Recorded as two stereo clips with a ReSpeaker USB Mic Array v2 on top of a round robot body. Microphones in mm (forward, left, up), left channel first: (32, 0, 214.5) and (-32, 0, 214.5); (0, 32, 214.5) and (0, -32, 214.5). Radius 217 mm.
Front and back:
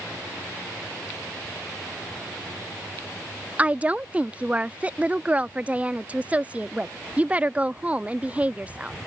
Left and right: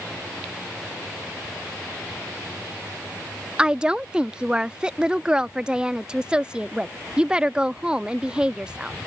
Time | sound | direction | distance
3.6 | a woman speaking | 145° right | ?